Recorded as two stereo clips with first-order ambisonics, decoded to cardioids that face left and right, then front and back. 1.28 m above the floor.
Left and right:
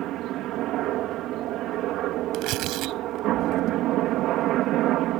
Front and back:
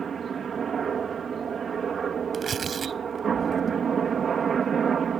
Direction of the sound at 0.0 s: 120° right.